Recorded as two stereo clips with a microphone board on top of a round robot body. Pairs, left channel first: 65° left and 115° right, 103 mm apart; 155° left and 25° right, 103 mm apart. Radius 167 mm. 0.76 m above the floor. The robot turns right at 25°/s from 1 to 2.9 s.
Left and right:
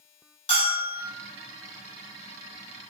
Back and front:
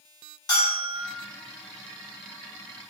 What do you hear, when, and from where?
0.5 s a bell: 105° left, 1.7 m